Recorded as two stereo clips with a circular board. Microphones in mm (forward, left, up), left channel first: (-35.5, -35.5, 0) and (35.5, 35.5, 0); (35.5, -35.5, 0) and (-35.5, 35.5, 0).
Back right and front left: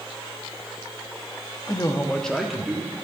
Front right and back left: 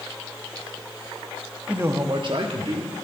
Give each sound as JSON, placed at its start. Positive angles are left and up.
{"t": 1.7, "sound": "a man speaking", "azimuth_deg": -150, "distance_m": 0.9}